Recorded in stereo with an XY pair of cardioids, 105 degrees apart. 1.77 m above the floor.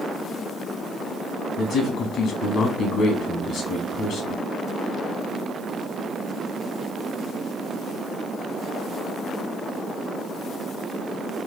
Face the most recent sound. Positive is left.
turn(degrees=70)